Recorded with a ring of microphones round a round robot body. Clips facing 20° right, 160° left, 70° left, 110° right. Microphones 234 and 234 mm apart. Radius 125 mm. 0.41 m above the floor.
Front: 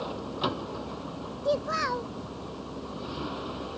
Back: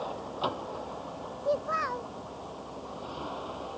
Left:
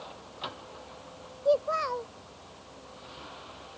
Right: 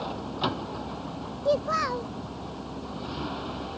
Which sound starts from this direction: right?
A vehicle, at 0.0 s.